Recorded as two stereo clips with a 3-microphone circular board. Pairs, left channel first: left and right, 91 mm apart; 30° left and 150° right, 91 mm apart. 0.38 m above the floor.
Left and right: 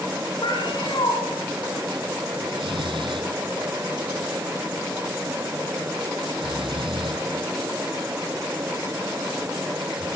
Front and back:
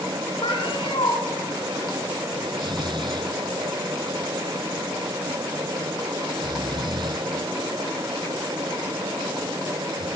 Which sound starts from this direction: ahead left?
A cat meowing, at 0.4 s.